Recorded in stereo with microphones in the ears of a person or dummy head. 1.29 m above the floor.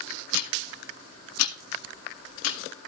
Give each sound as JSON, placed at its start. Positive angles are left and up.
{"t": 0.3, "sound": "ticking", "side_deg": 70, "distance_m": 1.6}